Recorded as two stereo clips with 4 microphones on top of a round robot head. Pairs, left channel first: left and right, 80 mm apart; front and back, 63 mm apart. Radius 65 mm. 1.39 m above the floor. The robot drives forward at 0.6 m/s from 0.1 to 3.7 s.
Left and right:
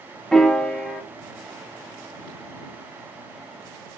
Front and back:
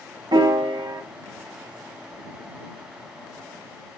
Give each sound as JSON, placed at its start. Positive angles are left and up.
{"t": 0.3, "sound": "a piano", "azimuth_deg": 175, "distance_m": 1.2}